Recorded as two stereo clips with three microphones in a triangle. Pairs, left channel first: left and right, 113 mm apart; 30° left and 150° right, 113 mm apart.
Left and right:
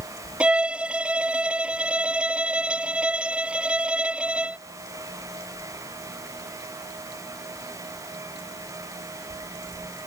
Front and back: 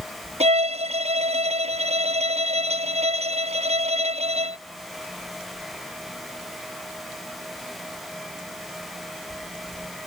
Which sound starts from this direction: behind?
A violin, at 0.4 s.